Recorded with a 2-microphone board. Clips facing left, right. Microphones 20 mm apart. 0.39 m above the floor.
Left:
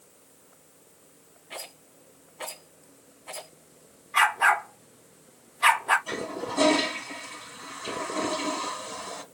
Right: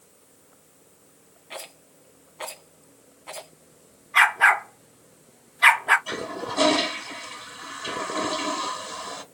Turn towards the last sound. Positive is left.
turn(degrees=-35)  # may be behind; listen again after turning